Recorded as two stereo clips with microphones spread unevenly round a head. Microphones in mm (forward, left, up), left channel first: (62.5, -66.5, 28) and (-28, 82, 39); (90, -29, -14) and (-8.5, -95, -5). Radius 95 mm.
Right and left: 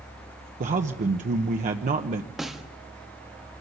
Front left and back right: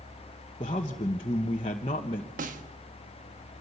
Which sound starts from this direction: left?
A man speaking, at 0.6 s.